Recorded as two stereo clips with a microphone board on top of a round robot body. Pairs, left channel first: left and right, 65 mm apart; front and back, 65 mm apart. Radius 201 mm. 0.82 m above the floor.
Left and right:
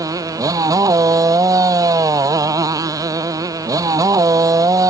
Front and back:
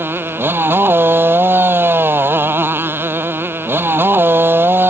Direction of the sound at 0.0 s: 125° right.